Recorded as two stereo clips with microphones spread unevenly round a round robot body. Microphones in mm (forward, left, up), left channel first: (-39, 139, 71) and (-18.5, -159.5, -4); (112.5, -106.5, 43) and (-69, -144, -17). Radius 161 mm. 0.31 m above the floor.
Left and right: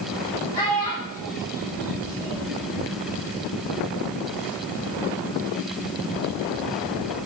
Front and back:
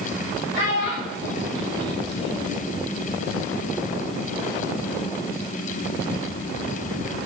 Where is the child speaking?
15° left, 5.5 m.